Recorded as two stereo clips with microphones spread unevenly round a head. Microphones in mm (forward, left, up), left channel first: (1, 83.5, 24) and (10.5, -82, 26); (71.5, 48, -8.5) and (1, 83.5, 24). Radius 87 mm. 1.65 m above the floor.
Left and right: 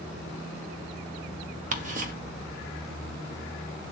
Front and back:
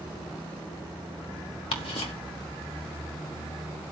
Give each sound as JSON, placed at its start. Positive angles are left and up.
{"t": 1.7, "sound": "ticking", "azimuth_deg": -40, "distance_m": 1.1}